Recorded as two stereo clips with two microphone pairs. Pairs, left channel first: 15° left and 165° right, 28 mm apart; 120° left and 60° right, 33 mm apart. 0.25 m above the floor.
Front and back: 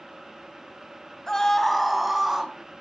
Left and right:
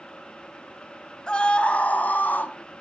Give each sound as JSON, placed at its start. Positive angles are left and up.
{"t": 1.3, "sound": "a scream", "azimuth_deg": 75, "distance_m": 1.5}